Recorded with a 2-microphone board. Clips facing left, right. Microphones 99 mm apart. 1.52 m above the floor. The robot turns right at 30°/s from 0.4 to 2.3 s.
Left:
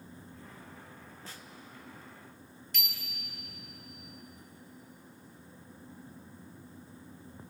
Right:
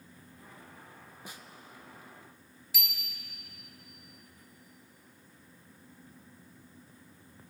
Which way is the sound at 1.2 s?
15° right (ahead or behind).